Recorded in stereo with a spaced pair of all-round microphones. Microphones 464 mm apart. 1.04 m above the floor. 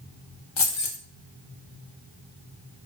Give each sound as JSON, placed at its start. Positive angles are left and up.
{"t": 0.6, "sound": "keys jangling", "side_deg": 85, "distance_m": 0.6}